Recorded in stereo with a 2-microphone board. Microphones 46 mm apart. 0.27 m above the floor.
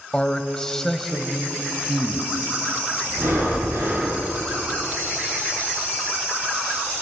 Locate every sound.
0.1 s a man speaking: 20° left (ahead or behind), 1.5 m; by 2.3 s 5° right (ahead or behind), 1.9 m
3.1 s breathing: 70° right (ahead or behind), 9 m